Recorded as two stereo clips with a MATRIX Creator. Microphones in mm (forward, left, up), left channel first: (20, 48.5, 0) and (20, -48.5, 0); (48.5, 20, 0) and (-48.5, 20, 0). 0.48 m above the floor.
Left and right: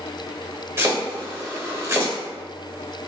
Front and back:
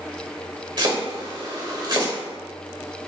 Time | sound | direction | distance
0.8 | chopping | 150° right | 1.0 m